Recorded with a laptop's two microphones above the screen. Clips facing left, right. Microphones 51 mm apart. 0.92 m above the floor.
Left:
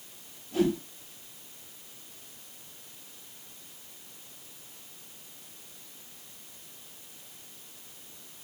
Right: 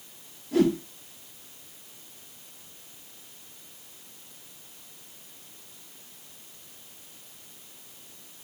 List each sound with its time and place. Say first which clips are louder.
0.5 s a whoosh: right 4 dB; 80° right, 2.5 m